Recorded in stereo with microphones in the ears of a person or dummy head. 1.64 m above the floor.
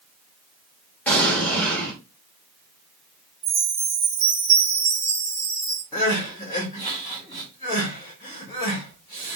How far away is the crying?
About 1.6 m.